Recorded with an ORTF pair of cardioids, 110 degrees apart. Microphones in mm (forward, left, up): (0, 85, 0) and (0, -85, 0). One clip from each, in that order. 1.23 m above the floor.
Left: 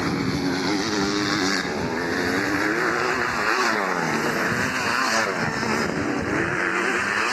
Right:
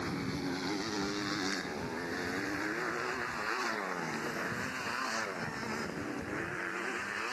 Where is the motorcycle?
65° left; by 7.3 s 75° left.